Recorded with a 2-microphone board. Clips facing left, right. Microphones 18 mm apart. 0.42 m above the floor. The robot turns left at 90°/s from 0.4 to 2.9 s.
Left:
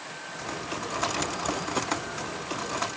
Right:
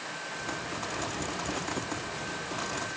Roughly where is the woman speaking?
No woman speaking in this recording.